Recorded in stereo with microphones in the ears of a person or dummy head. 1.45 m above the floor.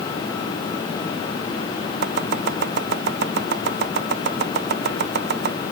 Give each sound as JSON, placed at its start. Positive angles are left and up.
{"t": 2.0, "sound": "chopping", "side_deg": -55}